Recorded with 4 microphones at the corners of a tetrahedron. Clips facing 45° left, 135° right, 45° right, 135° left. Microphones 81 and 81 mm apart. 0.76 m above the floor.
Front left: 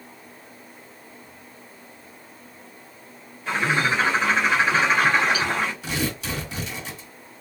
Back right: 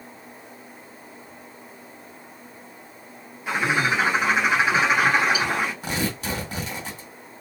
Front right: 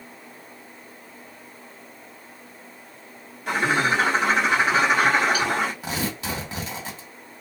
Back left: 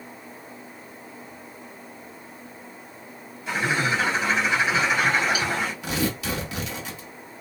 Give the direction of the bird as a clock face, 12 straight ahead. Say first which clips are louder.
Even, front right 3 dB; 2 o'clock.